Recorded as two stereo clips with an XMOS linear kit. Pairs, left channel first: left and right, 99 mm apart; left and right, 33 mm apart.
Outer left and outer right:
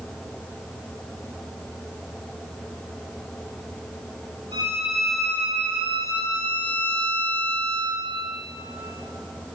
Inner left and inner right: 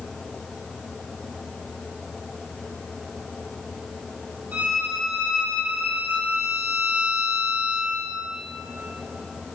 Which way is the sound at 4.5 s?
75° right (ahead or behind).